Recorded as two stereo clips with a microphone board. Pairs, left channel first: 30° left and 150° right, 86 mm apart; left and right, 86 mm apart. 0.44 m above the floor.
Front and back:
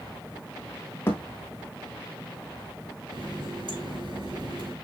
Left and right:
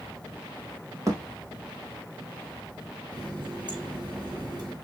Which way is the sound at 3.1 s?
125° right.